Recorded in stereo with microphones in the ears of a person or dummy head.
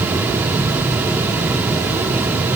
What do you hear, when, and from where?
Only background noise.